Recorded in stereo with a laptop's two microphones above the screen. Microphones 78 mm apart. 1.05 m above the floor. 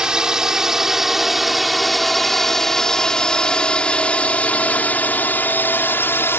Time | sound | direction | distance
0.0 | a drone | 10° right (ahead or behind) | ?